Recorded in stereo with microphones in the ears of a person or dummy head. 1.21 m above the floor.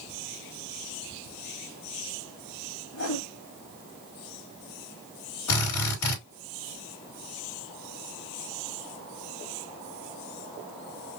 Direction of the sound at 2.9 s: 80° left.